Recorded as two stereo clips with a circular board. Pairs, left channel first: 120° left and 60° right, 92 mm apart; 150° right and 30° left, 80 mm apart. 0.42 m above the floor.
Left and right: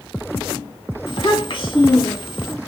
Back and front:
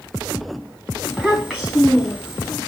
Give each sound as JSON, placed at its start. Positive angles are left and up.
{"t": 1.1, "sound": "a child speaking", "azimuth_deg": 105, "distance_m": 1.8}